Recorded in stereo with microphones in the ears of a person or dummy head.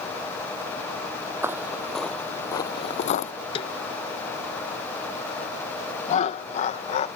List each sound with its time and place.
1.4 s footsteps: 10° right (ahead or behind); by 3.3 s 40° left (ahead or behind)
3.5 s a snare drum: 30° left (ahead or behind)
6.1 s laughter: 40° left (ahead or behind)